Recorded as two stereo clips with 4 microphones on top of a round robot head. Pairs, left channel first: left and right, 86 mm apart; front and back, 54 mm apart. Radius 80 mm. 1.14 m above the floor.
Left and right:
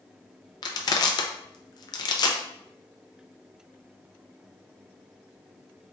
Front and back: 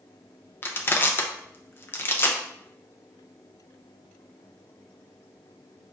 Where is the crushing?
50° left, 0.6 m.